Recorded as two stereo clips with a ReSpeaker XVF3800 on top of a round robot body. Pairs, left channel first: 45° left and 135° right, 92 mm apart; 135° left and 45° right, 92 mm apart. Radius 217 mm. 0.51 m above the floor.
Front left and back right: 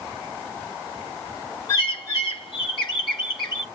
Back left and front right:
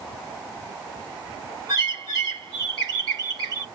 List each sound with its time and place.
1.7 s a bird: straight ahead, 3 m